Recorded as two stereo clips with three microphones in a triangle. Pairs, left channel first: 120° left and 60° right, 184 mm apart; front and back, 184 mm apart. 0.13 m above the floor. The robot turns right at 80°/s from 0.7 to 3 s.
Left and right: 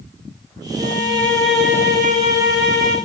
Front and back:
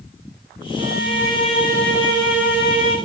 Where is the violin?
110° right, 6 m; by 3.0 s 60° left, 6 m.